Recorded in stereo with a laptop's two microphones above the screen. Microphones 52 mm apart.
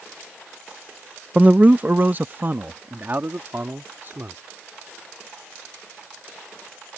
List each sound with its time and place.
1.4 s a man speaking: 25° right (ahead or behind); by 4.4 s 45° right (ahead or behind)